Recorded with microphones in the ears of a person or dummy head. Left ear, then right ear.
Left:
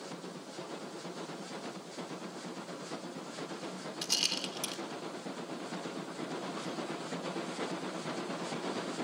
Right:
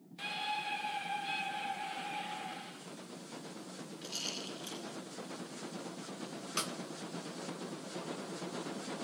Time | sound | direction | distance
4.0 | a rattle | 75° left (ahead or behind) | 3 m
6.6 | a snare drum | 65° right (ahead or behind) | 2.0 m